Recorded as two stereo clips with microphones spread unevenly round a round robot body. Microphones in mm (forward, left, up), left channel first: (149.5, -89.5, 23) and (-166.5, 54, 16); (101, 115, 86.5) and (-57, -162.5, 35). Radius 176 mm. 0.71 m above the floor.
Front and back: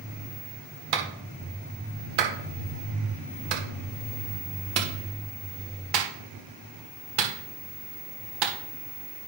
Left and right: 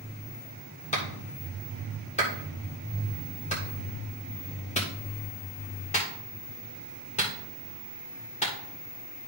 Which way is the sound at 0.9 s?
130° left.